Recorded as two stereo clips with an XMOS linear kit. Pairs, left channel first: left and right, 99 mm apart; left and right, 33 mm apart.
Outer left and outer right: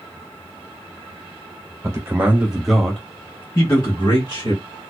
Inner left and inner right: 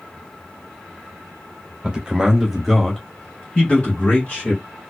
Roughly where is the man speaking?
Right.